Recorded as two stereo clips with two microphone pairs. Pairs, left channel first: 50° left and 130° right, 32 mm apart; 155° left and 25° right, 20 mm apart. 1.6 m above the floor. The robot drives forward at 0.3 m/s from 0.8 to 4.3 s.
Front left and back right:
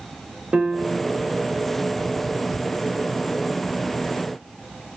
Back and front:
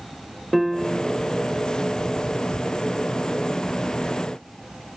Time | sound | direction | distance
0.5 | a piano | 120° right | 0.6 m